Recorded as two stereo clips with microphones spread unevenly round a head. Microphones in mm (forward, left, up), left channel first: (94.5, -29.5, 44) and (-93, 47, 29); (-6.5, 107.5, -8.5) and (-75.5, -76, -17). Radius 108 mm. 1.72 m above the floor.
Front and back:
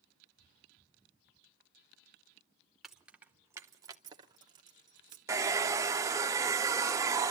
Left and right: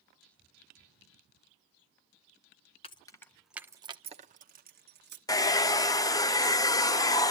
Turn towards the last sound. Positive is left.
turn(degrees=95)